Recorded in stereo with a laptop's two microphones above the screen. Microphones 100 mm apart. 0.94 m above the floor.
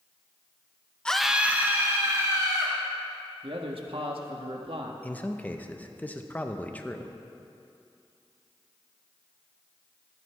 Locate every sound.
1.1 s a scream: 10° left (ahead or behind), 0.7 m; by 2.8 s 30° right (ahead or behind), 2.5 m
3.4 s a man speaking: 65° right (ahead or behind), 1.4 m
5.0 s a man speaking: 15° left (ahead or behind), 1.0 m